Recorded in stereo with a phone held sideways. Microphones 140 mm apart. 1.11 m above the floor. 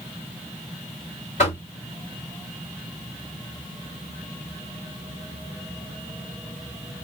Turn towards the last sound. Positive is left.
turn(degrees=55)  # may be behind; listen again after turning